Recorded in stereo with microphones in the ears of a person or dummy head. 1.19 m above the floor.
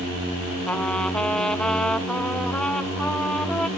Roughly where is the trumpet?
Centre.